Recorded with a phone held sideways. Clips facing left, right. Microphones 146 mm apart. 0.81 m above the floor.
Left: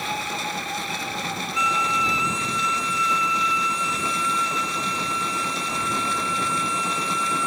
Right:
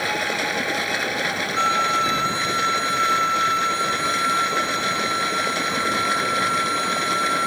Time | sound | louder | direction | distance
0.0 | running water | right 4 dB | 75° right (ahead or behind) | ?
1.5 | a violin | right 1 dB | 10° left (ahead or behind) | ?